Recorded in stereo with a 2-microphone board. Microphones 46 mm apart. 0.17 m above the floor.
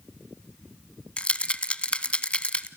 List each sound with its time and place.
1.2 s a rattle: 25° left (ahead or behind), 0.5 m